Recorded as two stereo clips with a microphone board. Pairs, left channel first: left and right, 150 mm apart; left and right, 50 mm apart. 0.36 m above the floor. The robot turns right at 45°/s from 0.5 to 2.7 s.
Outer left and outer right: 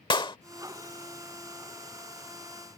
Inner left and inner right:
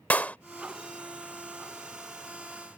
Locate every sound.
0.1 s a clap: 30° left (ahead or behind)